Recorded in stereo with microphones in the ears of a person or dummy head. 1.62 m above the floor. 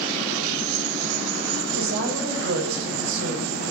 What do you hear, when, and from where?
1.7 s a woman speaking: 80° right, 7 m